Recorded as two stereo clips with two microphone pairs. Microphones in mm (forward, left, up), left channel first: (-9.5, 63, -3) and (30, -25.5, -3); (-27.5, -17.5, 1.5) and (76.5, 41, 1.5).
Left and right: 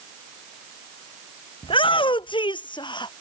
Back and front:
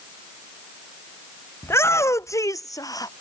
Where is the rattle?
No rattle in this recording.